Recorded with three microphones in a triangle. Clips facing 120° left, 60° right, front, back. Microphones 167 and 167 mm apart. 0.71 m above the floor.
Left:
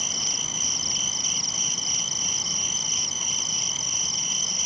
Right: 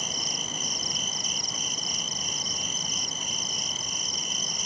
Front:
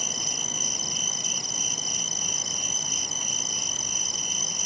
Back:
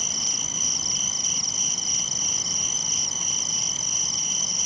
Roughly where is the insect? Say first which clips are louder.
Right 1 dB, front 1 dB; ahead right.